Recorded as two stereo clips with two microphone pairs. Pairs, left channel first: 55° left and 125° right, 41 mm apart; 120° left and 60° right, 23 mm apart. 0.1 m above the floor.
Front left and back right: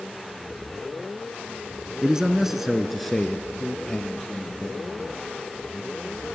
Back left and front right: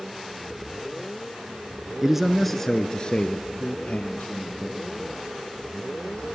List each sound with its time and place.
2.0 s a man speaking: 90° right, 1.1 m; by 6.2 s 130° left, 4 m